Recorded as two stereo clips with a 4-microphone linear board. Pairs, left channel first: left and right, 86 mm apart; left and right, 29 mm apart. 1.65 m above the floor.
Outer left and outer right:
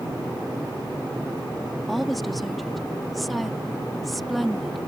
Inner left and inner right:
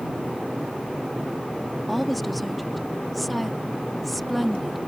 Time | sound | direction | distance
1.9 | a woman speaking | centre (ahead or behind) | ?